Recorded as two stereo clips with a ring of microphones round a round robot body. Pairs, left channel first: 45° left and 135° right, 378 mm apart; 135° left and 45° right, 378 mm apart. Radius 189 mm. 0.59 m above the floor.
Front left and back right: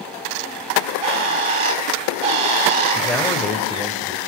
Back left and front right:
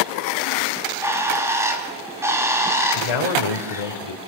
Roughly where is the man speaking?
Behind left.